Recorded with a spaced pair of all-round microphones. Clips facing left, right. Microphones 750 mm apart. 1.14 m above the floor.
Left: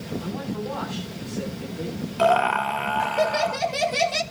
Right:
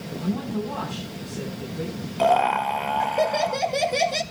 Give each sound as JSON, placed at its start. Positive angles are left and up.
{"t": 0.2, "sound": "a man speaking", "side_deg": -55, "distance_m": 9.5}
{"t": 2.2, "sound": "laughter", "side_deg": 40, "distance_m": 1.3}